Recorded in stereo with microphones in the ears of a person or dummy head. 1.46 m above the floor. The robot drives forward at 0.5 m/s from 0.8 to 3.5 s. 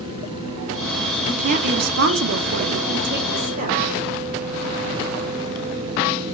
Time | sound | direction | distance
1.3 | a woman speaking | 40° right (ahead or behind) | 0.8 m